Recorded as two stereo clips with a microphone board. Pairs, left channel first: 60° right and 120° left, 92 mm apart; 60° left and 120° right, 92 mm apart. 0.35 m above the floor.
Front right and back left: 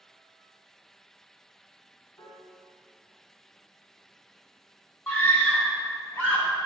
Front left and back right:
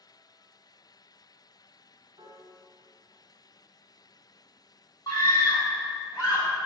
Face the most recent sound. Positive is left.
turn(degrees=5)